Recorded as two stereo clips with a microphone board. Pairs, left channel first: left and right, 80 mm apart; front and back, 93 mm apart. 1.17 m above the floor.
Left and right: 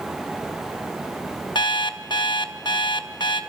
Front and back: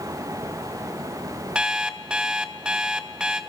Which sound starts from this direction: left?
An alarm clock, at 1.6 s.